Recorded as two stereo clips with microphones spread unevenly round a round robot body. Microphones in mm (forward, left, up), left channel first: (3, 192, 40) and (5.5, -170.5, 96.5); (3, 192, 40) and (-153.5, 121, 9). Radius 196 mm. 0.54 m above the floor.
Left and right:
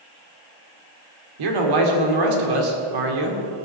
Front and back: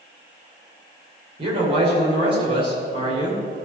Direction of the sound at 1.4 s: 100° right.